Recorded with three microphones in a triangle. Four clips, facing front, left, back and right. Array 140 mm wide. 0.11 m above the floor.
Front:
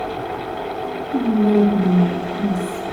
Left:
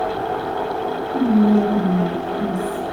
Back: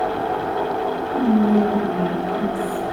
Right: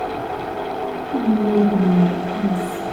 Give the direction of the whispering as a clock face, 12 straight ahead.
2 o'clock.